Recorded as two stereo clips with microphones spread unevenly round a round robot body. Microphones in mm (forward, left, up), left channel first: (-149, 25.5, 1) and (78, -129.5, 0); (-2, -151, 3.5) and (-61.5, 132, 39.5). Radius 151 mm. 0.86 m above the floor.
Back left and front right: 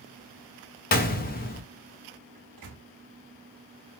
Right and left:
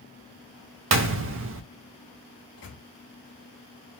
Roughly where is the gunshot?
Behind left.